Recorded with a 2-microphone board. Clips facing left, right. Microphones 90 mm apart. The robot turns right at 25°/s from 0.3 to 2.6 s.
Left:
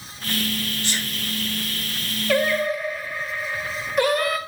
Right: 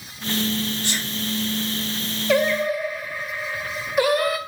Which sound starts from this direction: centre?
Singing, at 2.3 s.